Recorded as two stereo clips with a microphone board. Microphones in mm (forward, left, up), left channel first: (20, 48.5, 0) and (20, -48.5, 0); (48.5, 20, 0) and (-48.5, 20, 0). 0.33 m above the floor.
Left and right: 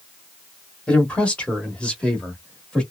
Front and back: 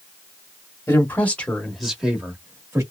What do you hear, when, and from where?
0.9 s a man speaking: 25° left, 1.1 m; by 2.8 s 165° left, 1.1 m